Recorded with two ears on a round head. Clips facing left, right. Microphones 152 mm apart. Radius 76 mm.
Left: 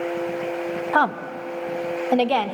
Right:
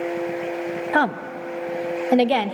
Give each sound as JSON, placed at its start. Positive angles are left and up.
{"t": 0.9, "sound": "a woman speaking", "side_deg": -15, "distance_m": 0.9}